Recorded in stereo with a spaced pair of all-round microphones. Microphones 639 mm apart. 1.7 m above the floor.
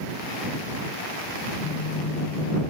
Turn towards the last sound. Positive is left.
turn(degrees=75)  # may be behind; listen again after turning